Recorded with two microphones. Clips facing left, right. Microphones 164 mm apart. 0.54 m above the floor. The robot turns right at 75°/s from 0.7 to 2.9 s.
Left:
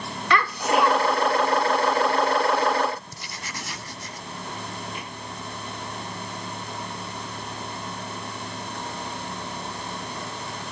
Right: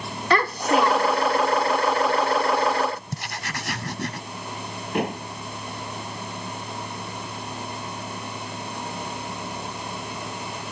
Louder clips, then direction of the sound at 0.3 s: Right 2 dB; 50° right.